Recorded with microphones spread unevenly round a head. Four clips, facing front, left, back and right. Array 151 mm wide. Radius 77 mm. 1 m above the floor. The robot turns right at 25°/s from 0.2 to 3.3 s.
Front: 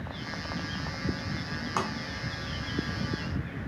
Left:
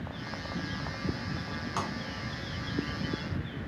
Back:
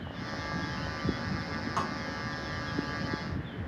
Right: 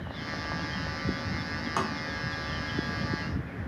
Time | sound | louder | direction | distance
1.8 | tapping | right 4 dB, front 2 dB | 50° right | 0.7 m